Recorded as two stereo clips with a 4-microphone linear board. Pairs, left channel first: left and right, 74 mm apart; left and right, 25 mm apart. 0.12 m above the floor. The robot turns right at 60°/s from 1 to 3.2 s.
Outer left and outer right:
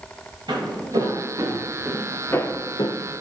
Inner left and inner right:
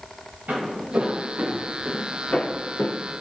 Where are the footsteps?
85° right, 2.0 m; by 3.0 s 85° left, 0.7 m.